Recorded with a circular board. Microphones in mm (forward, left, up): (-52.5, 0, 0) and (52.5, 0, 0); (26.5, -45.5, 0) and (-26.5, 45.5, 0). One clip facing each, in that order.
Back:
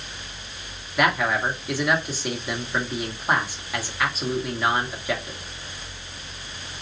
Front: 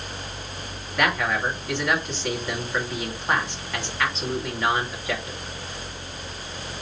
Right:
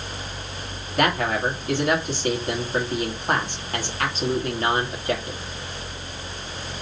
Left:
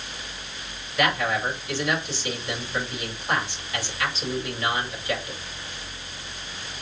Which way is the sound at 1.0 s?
100° right.